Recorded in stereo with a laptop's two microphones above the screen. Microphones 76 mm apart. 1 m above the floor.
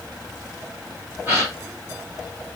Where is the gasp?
30° right (ahead or behind), 1.0 m.